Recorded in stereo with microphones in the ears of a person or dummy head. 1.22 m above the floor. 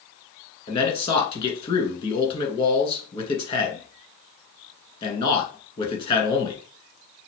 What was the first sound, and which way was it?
A man speaking, 30° left (ahead or behind).